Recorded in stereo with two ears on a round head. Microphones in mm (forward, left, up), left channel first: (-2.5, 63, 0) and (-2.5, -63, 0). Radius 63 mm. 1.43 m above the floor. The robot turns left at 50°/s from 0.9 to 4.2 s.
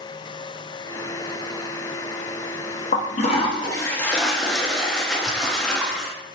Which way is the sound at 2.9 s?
70° left.